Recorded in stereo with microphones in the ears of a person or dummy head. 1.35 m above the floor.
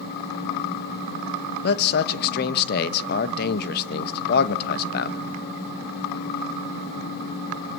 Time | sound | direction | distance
1.6 | a man speaking | 65° left (ahead or behind) | 1.1 m